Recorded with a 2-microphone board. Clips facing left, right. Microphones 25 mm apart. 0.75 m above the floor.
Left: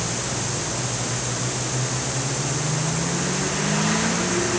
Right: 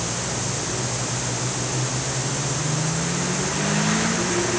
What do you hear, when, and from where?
Only background noise.